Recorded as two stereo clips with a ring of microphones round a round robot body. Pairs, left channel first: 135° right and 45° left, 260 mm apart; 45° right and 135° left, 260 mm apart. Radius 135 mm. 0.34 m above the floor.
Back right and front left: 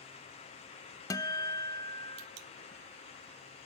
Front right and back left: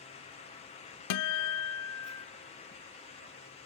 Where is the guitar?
55° right, 0.6 m.